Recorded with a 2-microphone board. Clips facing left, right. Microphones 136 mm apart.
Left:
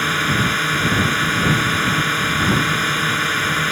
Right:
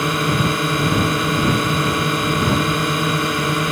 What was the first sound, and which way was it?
A drone, 25° right (ahead or behind).